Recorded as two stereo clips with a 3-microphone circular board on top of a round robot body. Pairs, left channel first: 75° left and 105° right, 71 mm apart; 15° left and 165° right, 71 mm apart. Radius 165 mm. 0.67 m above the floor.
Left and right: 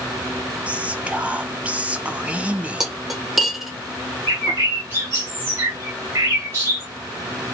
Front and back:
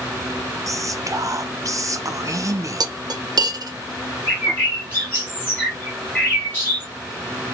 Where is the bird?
50° right, 1.5 m.